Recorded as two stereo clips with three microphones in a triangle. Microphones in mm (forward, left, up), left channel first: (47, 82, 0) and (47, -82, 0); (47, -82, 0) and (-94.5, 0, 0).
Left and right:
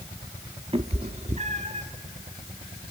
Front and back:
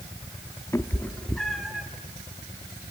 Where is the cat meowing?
90° right, 0.9 m; by 1.9 s 125° right, 1.5 m.